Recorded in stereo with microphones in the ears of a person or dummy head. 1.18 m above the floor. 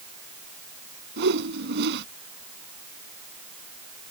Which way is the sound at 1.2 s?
60° right (ahead or behind).